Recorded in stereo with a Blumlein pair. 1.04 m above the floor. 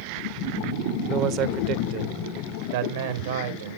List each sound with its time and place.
1.1 s a man speaking: 30° right, 1.0 m; by 3.8 s 60° right, 2.5 m